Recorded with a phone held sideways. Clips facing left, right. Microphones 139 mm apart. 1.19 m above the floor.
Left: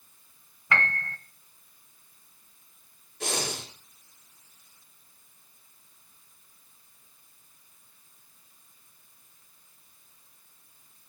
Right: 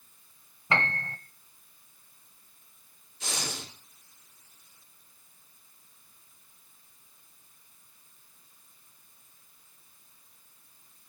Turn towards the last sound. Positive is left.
turn(degrees=65)  # may be behind; listen again after turning